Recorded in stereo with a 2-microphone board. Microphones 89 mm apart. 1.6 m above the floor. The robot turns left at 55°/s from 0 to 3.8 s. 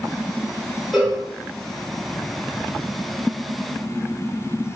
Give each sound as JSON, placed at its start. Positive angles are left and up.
{"t": 0.9, "sound": "a cowbell", "side_deg": 0, "distance_m": 1.0}